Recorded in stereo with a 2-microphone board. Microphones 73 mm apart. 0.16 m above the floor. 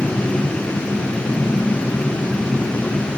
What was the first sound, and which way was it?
Only background noise.